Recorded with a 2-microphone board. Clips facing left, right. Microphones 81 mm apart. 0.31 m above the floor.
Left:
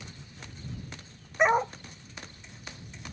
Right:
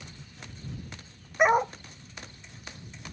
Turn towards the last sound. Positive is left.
turn(degrees=-5)  # may be behind; listen again after turning